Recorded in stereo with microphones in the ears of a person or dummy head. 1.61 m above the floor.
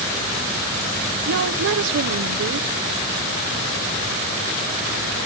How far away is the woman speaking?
About 1.0 m.